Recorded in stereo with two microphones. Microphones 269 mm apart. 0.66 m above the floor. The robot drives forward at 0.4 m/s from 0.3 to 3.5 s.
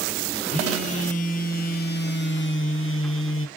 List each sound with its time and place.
0.5 s a phone buzzing: 25° left (ahead or behind), 1.2 m; by 3.5 s 50° left (ahead or behind), 0.7 m